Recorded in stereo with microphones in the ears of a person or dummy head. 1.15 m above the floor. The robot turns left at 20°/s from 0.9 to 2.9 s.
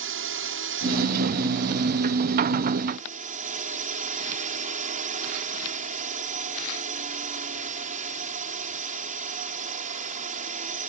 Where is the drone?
100° right; by 10.9 s 140° right.